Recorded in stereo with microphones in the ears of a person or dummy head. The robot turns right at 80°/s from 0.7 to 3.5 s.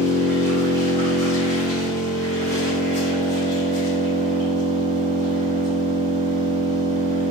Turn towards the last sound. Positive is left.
turn(degrees=50)